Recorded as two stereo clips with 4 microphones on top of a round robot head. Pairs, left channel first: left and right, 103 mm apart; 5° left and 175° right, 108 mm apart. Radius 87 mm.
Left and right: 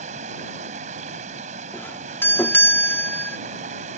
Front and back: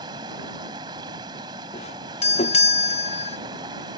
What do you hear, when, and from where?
0.0 s running water: 110° right
1.7 s a doorbell: 20° left